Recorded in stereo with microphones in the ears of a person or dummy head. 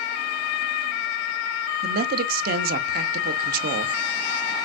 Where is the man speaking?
50° right (ahead or behind), 0.6 m.